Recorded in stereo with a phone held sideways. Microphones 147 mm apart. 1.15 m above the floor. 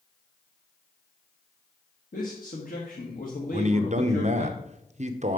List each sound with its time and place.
2.1 s a man speaking: 65° left (ahead or behind), 1.4 m
3.5 s a man speaking: 50° right (ahead or behind), 0.8 m